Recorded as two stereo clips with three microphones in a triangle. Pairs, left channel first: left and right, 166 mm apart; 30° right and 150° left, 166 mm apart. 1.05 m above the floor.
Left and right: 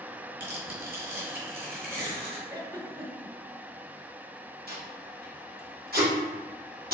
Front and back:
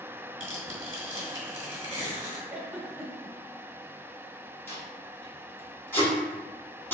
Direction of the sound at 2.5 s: 135° right.